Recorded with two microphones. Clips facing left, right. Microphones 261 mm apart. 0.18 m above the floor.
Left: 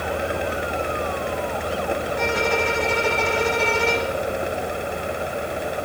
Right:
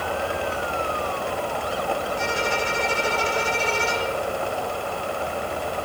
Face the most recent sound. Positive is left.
turn(degrees=70)  # may be behind; listen again after turning